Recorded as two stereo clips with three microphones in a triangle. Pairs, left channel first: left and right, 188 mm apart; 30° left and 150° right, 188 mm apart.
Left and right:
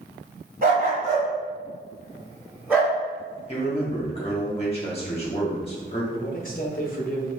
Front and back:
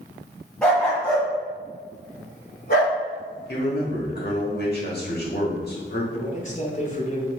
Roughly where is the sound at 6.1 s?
Ahead left.